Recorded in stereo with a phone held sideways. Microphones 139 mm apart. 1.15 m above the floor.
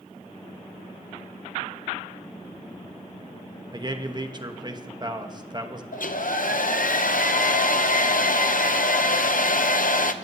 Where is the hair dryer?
75° left (ahead or behind), 0.6 m.